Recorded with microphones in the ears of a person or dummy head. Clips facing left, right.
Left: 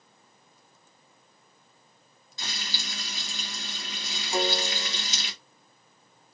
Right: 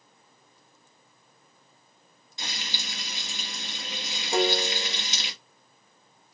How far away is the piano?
About 1.3 m.